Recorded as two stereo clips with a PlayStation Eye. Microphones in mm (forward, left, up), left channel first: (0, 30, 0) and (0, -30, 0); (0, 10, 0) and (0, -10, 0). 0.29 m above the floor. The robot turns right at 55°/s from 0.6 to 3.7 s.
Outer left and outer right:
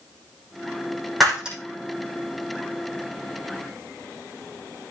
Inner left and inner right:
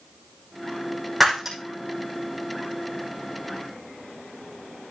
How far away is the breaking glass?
About 6 m.